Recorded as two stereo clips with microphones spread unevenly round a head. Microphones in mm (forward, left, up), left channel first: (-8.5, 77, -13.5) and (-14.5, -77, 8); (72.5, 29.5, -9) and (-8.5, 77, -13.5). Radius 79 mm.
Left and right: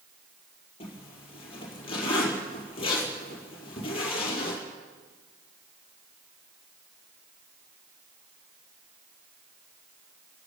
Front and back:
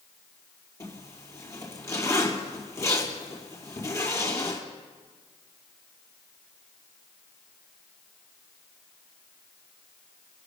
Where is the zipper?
30° left, 5 m.